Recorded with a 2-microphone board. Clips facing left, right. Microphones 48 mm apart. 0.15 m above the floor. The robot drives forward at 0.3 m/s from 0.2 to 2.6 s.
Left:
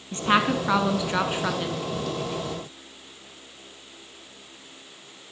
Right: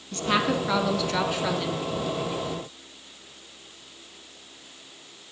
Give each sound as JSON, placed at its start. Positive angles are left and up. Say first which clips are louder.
{"t": 0.1, "sound": "a woman speaking", "louder": "left 3 dB", "side_deg": 25, "distance_m": 1.4}